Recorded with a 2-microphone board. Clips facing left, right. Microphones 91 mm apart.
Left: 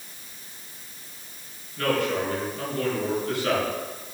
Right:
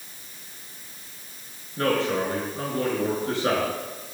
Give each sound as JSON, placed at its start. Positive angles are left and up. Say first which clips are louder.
{"t": 1.8, "sound": "a man speaking", "louder": "right 1 dB", "side_deg": -30, "distance_m": 6.0}